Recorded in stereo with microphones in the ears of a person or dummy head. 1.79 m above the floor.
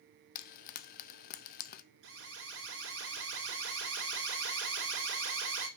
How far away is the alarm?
About 2.5 m.